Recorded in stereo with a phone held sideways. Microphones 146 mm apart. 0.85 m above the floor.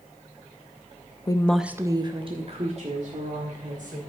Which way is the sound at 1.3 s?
30° left (ahead or behind).